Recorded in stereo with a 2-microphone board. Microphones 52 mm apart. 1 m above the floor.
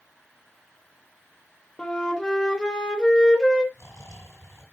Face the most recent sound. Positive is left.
turn(degrees=85)